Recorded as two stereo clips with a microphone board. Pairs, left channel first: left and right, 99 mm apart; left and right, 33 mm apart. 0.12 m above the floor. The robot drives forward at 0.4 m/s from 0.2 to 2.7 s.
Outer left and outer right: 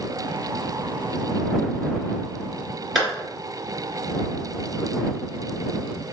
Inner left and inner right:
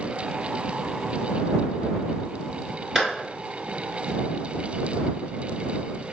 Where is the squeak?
I don't hear a squeak.